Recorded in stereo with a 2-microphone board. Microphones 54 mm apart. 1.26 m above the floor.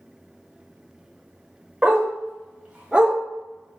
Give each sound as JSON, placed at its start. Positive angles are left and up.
{"t": 1.8, "sound": "a dog barking", "side_deg": -25, "distance_m": 1.6}